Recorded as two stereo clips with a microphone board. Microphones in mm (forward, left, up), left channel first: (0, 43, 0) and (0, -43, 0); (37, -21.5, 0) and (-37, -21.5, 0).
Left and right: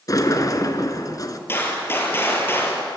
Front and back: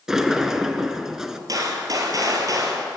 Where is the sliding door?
100° left, 1.6 m.